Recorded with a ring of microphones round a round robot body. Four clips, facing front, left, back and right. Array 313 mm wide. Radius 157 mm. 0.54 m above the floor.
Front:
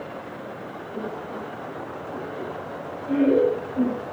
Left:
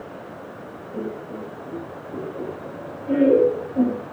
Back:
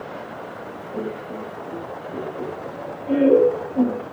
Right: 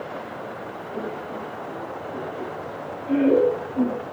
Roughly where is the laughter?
Behind left.